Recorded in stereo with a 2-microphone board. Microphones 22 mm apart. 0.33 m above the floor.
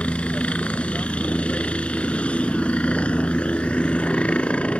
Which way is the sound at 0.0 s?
70° left (ahead or behind).